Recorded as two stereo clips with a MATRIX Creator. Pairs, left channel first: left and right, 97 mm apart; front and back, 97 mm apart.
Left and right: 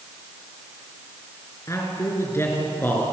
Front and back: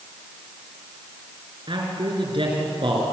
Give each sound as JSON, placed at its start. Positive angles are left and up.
{"t": 1.7, "sound": "a man speaking", "azimuth_deg": 150, "distance_m": 5.0}